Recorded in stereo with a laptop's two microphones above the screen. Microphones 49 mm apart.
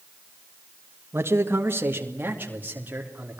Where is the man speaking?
55° right (ahead or behind), 1.6 m; by 3.4 s 30° right (ahead or behind), 3.5 m.